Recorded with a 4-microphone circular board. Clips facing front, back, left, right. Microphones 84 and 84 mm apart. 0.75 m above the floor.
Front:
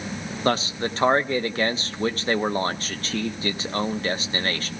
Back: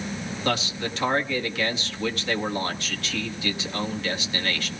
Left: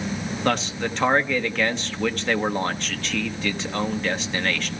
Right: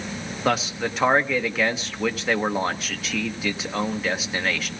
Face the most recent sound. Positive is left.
turn(degrees=-10)